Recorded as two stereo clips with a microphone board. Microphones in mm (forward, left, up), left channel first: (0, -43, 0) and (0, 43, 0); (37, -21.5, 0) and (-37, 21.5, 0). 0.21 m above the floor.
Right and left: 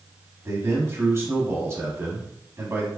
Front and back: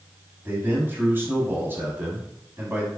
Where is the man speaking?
110° left, 1.1 m.